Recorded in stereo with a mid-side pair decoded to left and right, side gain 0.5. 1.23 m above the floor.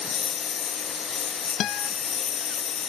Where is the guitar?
65° left.